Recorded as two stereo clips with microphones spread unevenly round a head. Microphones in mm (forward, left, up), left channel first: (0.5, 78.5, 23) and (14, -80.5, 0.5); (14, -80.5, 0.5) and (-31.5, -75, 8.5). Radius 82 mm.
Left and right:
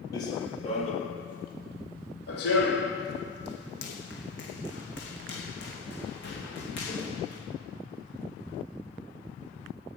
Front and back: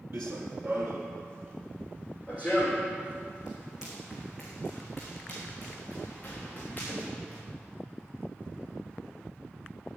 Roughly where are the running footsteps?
Behind left.